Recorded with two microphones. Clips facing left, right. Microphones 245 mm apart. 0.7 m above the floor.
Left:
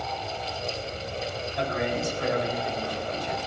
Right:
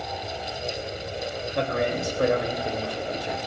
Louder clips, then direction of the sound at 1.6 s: Right 3 dB; 70° right (ahead or behind).